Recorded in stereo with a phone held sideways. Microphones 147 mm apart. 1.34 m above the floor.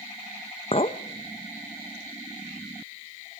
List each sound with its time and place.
0.7 s a clink: 45° left (ahead or behind), 0.8 m